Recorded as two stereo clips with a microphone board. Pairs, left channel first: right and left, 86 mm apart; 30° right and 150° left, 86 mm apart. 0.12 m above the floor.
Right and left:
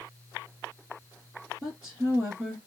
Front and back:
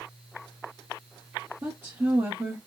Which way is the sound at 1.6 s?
170° left.